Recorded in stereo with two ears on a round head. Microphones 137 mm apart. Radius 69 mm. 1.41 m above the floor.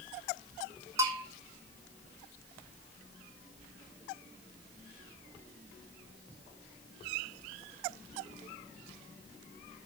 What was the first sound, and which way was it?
A bell, 20° right (ahead or behind).